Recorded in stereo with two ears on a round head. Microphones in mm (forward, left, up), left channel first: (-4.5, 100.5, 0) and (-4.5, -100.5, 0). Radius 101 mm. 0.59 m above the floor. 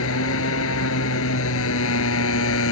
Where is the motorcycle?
65° left (ahead or behind).